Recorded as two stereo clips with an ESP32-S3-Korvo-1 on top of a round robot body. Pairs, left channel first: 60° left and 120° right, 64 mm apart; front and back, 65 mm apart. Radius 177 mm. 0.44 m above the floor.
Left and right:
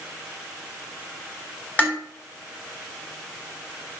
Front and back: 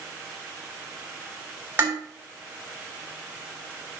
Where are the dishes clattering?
125° left, 2.5 m.